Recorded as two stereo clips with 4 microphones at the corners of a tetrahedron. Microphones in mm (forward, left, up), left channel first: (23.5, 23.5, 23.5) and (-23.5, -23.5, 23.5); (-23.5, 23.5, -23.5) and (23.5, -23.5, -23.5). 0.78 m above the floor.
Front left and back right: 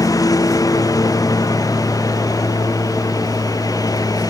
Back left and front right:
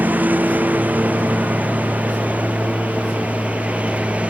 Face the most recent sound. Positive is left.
turn(degrees=25)